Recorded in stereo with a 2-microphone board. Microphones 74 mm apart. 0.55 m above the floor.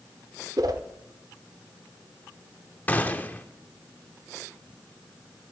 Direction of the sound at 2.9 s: 25° left (ahead or behind).